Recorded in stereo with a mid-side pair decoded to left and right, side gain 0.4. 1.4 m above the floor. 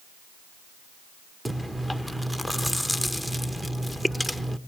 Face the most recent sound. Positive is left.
turn(degrees=-5)